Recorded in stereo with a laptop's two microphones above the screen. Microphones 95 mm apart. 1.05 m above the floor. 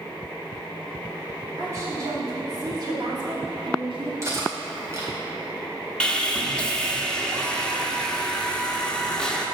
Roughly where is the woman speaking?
Right.